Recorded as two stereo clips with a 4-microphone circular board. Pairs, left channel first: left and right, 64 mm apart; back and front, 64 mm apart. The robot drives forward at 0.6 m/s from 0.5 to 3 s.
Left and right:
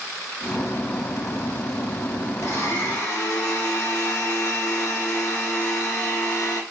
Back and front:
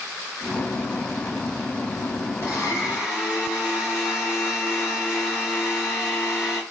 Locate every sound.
2.4 s a blender: 135° left, 3 m; by 6.6 s 140° left, 3 m